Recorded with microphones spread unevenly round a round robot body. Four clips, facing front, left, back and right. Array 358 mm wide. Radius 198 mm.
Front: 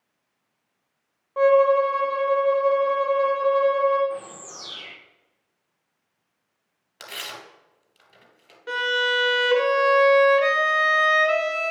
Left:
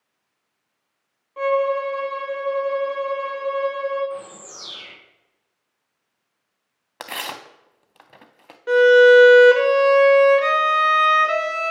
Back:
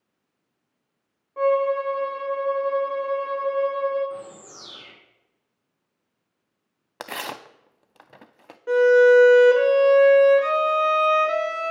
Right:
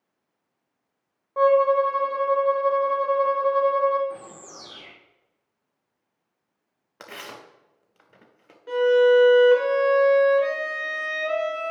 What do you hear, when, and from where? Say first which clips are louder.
1.4 s a violin: right 3 dB, front 4 dB; 30° right, 1.4 m
4.1 s a bird: left 5 dB, front 3 dB; 95° right, 1.2 m
7.0 s tearing paper: left 8 dB, back 6 dB; 125° left, 0.5 m
8.7 s a violin: left 6 dB, back 11 dB; 90° left, 1.4 m